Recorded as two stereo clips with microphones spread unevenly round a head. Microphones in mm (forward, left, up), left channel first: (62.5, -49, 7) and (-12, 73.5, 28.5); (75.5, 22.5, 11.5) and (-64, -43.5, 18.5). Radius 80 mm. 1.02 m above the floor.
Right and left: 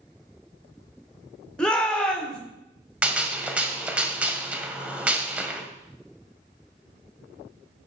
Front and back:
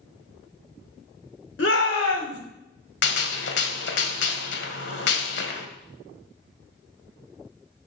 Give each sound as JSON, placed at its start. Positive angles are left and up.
{"t": 1.6, "sound": "a shout", "azimuth_deg": 25, "distance_m": 3.0}
{"t": 3.0, "sound": "a gunshot", "azimuth_deg": 45, "distance_m": 1.7}